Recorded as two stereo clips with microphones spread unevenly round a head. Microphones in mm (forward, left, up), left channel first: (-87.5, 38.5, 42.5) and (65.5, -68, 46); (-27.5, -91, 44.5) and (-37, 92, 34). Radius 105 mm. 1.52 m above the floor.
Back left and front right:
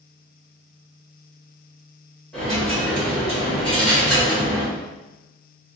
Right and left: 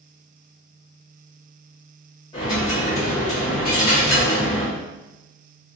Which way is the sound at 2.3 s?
130° right.